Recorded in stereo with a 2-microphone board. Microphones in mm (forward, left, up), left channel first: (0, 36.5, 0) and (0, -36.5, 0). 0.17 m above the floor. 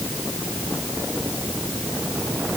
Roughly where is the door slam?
I don't hear a door slam.